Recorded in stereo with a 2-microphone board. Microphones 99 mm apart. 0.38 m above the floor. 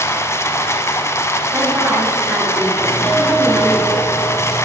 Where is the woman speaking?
20° right (ahead or behind), 2.5 m.